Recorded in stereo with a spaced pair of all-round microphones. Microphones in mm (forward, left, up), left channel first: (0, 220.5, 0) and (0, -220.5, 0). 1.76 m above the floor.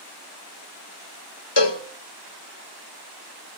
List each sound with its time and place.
1.6 s a cowbell: 70° left (ahead or behind), 1.1 m